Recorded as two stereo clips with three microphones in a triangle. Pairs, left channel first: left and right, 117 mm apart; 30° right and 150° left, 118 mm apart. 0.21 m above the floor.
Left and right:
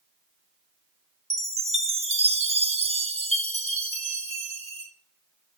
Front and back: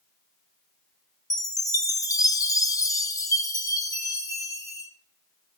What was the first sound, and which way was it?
A chime, 85° right.